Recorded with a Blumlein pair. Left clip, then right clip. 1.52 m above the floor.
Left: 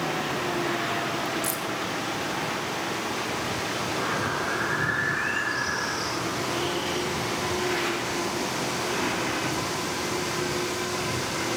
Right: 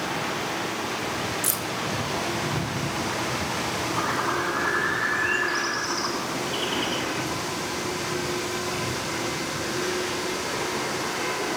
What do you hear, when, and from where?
1.4 s keys jangling: 20° right, 1.1 m
3.9 s a bird: 25° right, 7.5 m